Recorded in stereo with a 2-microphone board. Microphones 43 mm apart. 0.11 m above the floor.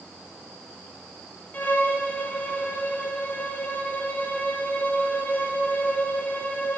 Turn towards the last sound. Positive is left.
turn(degrees=35)  # may be behind; listen again after turning